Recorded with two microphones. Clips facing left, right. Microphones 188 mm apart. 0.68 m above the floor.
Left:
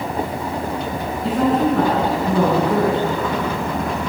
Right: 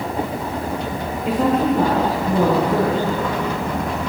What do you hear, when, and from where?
1.2 s a woman speaking: 85° left, 9 m